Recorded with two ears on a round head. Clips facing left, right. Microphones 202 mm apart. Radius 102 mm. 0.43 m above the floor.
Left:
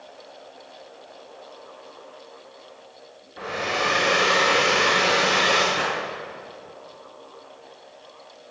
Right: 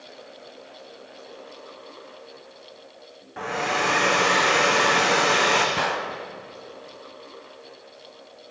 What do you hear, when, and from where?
3.4 s a hair dryer: 85° right, 6.5 m
5.8 s a gunshot: 60° right (ahead or behind), 3 m